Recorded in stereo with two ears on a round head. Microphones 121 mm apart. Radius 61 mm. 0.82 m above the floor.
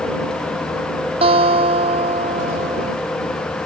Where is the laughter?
No laughter in this recording.